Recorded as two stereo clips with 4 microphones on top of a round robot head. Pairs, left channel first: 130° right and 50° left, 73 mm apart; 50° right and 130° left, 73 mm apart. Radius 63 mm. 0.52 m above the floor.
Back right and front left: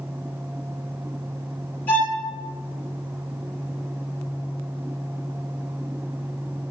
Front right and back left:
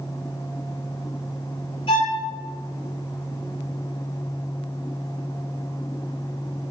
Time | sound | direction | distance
1.9 | a violin | 60° right | 6.5 m